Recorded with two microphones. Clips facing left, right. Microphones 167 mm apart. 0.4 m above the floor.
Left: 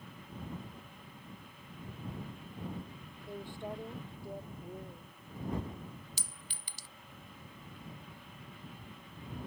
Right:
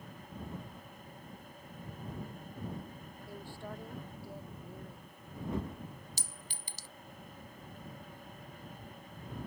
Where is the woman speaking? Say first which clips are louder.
Left 4 dB; 20° left (ahead or behind).